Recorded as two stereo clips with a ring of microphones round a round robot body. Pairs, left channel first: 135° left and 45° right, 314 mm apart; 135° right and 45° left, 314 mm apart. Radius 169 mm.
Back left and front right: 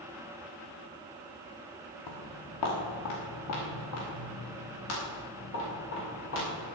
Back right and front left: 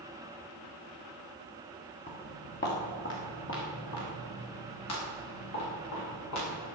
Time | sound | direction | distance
2.1 | footsteps | 160° left | 4 m